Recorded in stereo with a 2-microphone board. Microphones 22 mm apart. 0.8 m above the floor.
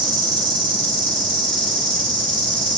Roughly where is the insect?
Left.